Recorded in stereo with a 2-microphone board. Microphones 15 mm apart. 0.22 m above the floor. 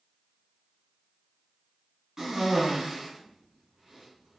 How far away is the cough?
About 1.5 m.